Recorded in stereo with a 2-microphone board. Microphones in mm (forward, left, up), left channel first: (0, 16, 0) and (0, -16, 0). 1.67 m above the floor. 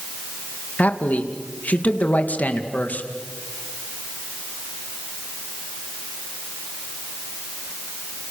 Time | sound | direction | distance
0.8 | a man speaking | 65° left (ahead or behind) | 2 m